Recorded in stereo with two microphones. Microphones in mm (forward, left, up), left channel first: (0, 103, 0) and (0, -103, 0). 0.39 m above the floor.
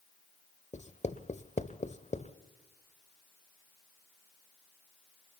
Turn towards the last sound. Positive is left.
turn(degrees=35)  # may be behind; listen again after turning